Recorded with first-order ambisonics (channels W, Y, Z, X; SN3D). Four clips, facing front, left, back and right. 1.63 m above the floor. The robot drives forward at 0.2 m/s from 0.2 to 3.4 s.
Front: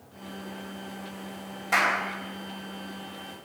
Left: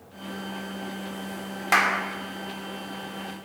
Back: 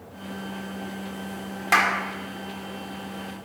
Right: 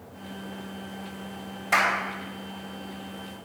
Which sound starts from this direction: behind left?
A clap, at 1.7 s.